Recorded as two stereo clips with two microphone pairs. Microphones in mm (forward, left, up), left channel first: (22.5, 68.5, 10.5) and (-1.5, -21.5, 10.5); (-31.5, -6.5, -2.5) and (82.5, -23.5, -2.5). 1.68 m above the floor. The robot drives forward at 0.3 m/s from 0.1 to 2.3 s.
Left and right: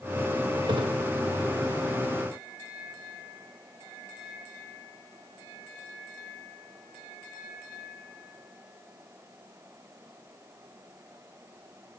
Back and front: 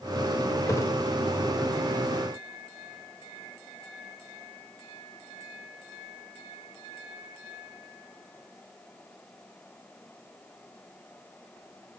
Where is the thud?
125° right, 3.5 m; by 0.9 s 130° right, 3.5 m.